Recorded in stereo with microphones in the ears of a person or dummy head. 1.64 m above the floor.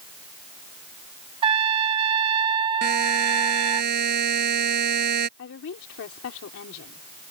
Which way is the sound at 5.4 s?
75° left (ahead or behind).